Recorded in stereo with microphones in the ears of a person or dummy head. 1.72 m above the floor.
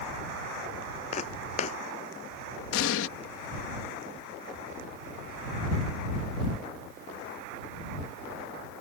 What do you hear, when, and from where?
1.1 s footsteps: 45° left (ahead or behind)
2.7 s an explosion: 80° left